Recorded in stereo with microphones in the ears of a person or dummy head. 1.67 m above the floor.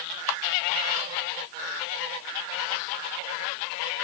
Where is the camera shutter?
60° left (ahead or behind), 1.5 m.